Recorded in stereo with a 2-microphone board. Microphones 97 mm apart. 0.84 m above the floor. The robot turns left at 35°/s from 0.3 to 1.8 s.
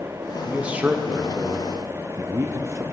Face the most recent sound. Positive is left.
turn(degrees=-30)  # may be behind; listen again after turning